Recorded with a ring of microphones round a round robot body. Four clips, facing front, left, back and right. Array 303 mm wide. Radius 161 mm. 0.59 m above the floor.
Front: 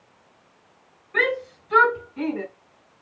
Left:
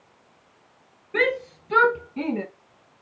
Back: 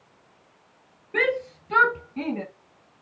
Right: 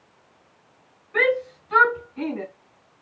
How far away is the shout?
About 5.5 m.